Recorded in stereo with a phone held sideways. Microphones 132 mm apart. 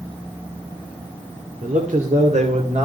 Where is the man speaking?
75° right (ahead or behind), 1.7 m; by 2.9 s 55° right (ahead or behind), 3 m.